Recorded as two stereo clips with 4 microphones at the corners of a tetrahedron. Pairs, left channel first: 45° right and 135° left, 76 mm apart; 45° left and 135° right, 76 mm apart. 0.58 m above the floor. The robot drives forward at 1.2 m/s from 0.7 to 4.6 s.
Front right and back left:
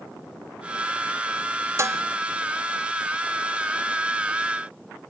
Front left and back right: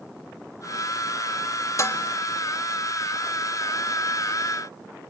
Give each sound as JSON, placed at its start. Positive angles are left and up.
{"t": 1.8, "sound": "dishes clattering", "azimuth_deg": 90, "distance_m": 0.8}